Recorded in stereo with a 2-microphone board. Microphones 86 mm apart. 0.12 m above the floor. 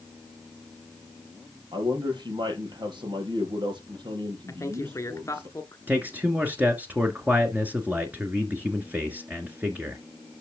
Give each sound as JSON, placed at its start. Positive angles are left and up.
{"t": 1.7, "sound": "a man speaking", "side_deg": -65, "distance_m": 4.5}
{"t": 4.5, "sound": "a man speaking", "side_deg": 35, "distance_m": 1.3}
{"t": 5.9, "sound": "a man speaking", "side_deg": -20, "distance_m": 1.5}